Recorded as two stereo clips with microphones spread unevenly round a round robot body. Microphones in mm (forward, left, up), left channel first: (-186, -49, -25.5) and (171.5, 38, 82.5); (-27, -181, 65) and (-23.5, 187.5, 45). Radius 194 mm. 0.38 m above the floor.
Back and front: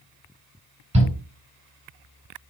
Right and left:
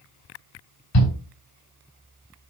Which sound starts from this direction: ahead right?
A shout, at 0.9 s.